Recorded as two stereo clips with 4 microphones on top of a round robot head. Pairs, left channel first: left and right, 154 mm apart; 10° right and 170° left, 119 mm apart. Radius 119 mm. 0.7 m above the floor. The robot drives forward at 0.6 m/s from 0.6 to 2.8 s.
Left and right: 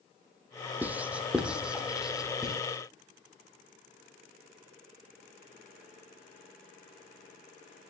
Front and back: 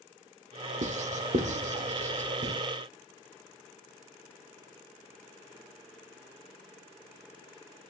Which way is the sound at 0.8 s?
170° right.